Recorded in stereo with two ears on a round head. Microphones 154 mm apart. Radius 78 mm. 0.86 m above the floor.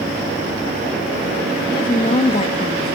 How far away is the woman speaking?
About 1.0 m.